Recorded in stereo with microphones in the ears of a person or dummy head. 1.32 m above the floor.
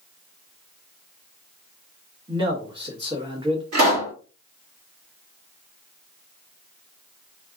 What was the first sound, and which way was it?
A man speaking, 20° right (ahead or behind).